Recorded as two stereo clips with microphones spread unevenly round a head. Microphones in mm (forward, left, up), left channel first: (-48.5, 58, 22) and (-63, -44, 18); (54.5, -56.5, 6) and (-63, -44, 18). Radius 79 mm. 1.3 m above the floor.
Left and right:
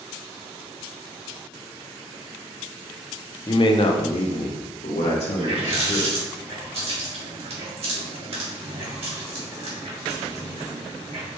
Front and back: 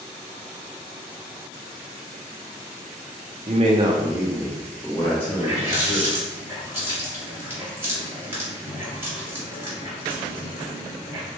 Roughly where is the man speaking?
Behind left.